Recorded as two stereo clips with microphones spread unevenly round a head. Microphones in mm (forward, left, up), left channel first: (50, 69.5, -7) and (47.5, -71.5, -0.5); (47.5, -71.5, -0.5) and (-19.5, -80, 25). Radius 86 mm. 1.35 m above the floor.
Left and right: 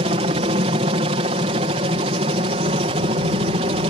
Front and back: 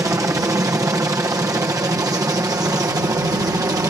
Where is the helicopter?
130° right; by 3.9 s 140° right.